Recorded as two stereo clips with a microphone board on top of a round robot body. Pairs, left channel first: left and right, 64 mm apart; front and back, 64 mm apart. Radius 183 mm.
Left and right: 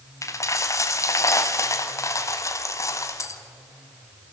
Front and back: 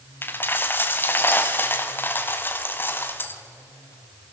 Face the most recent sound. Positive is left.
turn(degrees=55)